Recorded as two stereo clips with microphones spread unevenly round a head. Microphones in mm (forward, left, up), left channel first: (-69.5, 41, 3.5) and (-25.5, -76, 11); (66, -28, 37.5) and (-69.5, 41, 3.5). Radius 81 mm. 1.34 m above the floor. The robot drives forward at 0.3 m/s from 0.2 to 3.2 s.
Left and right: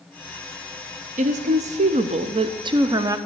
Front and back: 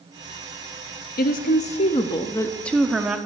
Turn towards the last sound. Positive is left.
turn(degrees=-135)